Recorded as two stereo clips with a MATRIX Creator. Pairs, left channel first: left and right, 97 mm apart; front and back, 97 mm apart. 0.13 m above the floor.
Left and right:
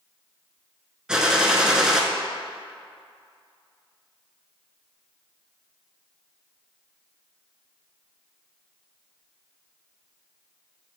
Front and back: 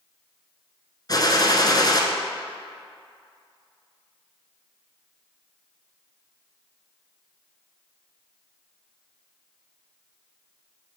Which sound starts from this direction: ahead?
A gunshot, at 1.1 s.